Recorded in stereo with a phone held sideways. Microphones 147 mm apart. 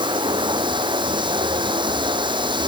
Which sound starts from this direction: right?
Running water, at 0.0 s.